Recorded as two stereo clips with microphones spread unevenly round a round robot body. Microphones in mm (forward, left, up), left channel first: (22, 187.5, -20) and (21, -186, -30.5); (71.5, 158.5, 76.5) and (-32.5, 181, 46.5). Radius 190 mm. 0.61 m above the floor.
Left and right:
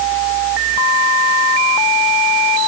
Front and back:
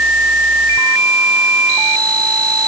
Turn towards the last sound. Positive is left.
No sound to turn to.